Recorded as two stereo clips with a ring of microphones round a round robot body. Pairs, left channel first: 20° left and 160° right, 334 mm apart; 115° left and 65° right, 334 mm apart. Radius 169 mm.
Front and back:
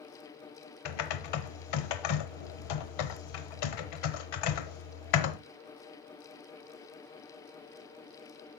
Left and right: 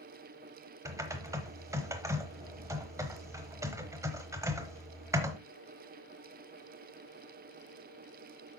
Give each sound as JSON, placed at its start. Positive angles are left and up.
{"t": 0.8, "sound": "typing on a keyboard", "azimuth_deg": 15, "distance_m": 0.9}